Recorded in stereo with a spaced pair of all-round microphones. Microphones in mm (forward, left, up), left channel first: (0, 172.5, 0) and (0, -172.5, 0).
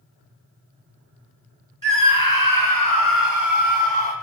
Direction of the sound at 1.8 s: 65° right (ahead or behind).